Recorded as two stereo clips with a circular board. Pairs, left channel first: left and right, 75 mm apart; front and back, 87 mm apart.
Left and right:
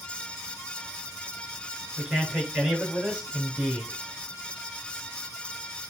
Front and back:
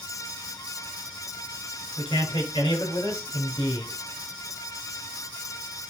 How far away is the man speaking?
About 7 m.